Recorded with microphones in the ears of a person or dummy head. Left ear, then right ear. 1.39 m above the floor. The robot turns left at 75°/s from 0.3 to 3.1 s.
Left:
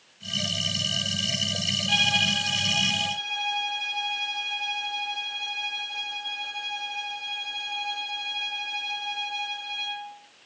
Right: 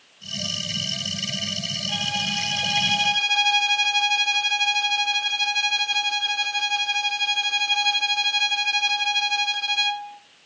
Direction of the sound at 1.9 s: 40° left.